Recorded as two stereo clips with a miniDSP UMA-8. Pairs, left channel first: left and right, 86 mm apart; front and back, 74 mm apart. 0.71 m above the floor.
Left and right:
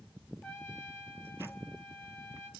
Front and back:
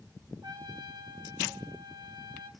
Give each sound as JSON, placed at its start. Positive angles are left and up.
{"t": 0.4, "sound": "a trumpet", "azimuth_deg": 170, "distance_m": 4.0}